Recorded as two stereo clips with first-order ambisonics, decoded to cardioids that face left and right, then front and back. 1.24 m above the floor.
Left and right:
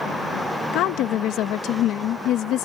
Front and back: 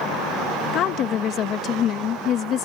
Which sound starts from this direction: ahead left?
A woman speaking, at 0.7 s.